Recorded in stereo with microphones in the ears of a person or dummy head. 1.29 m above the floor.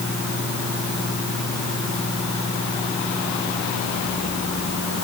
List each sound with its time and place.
Only background noise.